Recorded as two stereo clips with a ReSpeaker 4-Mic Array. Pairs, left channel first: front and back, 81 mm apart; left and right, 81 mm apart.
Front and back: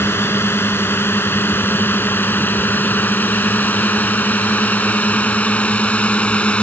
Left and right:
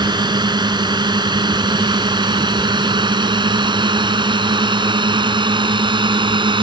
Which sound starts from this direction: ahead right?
A drone, at 0.0 s.